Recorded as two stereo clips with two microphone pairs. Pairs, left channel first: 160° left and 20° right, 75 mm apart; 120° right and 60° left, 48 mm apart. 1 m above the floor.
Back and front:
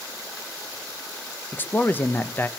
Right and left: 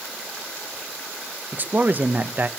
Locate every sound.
1.5 s a man speaking: 100° left, 0.9 m